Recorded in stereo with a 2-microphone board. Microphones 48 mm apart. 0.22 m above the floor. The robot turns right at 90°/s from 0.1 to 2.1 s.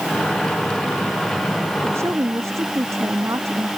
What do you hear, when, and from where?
1.8 s a woman speaking: 55° right (ahead or behind); by 3.7 s 75° right (ahead or behind)